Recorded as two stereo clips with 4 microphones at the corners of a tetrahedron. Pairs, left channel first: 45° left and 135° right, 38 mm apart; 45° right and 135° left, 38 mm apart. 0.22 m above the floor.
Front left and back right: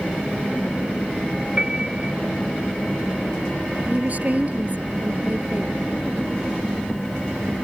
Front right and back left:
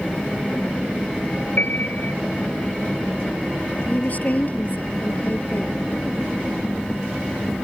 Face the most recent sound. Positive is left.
turn(degrees=-90)